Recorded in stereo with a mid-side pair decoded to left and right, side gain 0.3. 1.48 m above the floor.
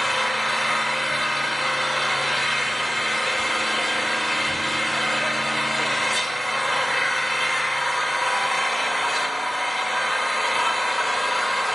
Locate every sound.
0.0 s an engine running: 10° left, 2 m